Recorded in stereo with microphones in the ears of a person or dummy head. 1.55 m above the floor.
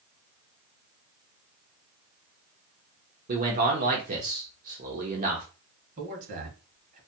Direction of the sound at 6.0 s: 50° right (ahead or behind).